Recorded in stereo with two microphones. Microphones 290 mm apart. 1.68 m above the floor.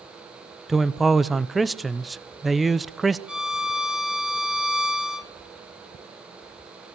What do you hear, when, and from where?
0.7 s a man speaking: centre (ahead or behind), 0.8 m
3.3 s a violin: 70° left (ahead or behind), 1.0 m